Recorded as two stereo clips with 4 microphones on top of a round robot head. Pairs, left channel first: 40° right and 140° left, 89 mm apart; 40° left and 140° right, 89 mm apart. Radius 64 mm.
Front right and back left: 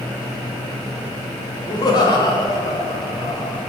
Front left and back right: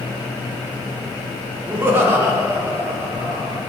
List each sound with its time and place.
1.7 s laughter: 75° right, 1.3 m